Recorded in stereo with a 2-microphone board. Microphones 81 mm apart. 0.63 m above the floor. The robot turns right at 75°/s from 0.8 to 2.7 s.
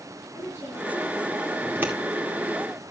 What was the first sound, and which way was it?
A woman speaking, 30° left.